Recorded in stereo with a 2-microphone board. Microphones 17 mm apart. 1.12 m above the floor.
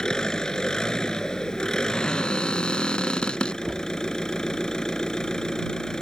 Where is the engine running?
40° left (ahead or behind).